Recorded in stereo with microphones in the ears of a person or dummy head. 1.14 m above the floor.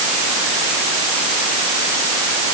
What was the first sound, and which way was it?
Only background noise.